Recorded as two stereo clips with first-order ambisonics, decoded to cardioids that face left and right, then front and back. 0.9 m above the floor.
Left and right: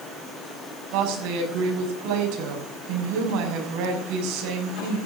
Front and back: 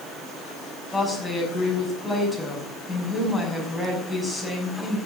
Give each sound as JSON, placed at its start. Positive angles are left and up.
{"t": 0.9, "sound": "a woman speaking", "azimuth_deg": -90, "distance_m": 5.5}